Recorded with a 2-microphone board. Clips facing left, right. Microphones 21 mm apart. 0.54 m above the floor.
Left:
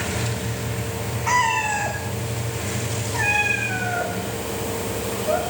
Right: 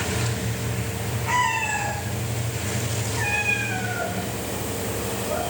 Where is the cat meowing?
65° left (ahead or behind), 6.5 m.